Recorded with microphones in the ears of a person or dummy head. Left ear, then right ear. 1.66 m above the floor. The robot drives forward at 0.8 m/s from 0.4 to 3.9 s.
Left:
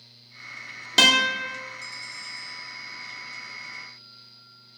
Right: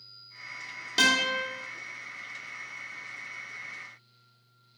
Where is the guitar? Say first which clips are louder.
Left 6 dB; 30° left (ahead or behind), 0.6 m; by 1.4 s 20° left (ahead or behind), 0.9 m.